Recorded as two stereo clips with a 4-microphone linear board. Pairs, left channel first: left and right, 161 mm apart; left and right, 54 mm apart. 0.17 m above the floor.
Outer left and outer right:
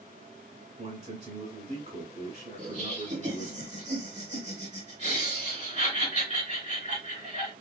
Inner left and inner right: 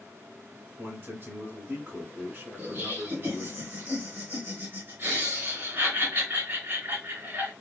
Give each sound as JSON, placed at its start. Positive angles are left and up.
{"t": 0.8, "sound": "a man speaking", "side_deg": -45, "distance_m": 1.9}
{"t": 2.6, "sound": "laughter", "side_deg": -50, "distance_m": 2.5}